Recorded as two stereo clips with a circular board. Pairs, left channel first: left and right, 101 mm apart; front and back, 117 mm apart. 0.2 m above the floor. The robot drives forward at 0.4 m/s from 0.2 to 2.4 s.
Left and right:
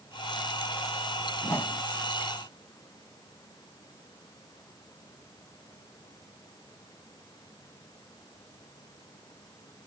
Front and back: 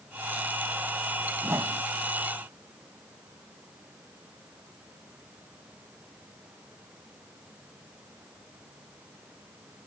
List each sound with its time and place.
1.4 s a whoosh: 125° left; by 1.8 s 145° left